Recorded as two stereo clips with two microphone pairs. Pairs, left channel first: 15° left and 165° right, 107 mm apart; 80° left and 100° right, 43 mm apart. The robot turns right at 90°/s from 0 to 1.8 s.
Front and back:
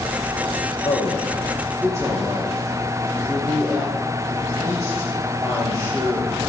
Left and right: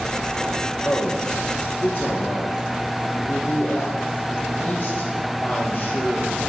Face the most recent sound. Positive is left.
turn(degrees=135)